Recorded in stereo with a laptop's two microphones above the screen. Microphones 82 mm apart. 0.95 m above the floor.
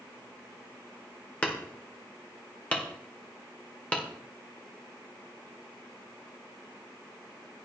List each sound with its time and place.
1.4 s hammering: 15° left (ahead or behind), 1.5 m